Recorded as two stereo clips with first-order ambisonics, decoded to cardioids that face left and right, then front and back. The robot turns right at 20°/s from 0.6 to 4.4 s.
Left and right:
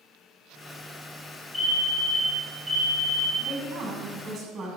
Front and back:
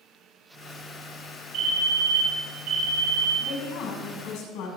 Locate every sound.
1.5 s a fire alarm: 170° left, 3.5 m; by 3.3 s 155° right, 3.5 m
3.4 s a woman speaking: 45° right, 6.5 m; by 4.7 s 25° right, 6.5 m